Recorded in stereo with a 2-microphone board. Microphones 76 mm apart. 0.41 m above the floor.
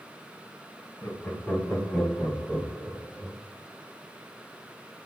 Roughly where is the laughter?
Left.